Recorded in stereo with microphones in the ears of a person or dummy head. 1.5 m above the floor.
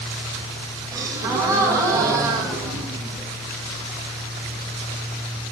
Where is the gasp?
20° right (ahead or behind), 2.5 m.